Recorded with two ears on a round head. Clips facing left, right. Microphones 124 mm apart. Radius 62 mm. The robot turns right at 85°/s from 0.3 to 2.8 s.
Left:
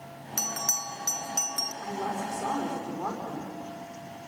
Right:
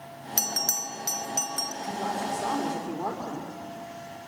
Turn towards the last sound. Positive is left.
turn(degrees=-165)